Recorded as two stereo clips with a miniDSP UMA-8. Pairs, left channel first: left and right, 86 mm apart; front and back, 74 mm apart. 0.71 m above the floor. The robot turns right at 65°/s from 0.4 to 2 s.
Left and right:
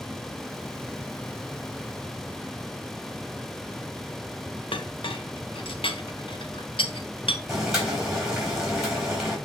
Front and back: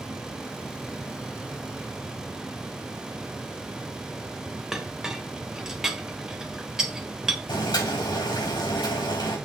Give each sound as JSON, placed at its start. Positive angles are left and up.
{"t": 4.7, "sound": "a clink", "azimuth_deg": 95, "distance_m": 1.3}
{"t": 7.5, "sound": "boiling", "azimuth_deg": -5, "distance_m": 4.0}